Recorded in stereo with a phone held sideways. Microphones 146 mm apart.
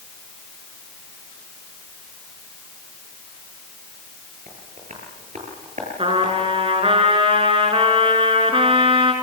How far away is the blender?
No blender in this recording.